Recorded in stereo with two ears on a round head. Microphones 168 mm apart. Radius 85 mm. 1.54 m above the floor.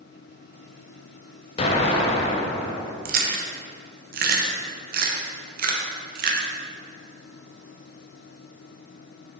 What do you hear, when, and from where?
1.6 s an explosion: 30° left (ahead or behind), 0.7 m
3.0 s chewing: 50° right (ahead or behind), 0.7 m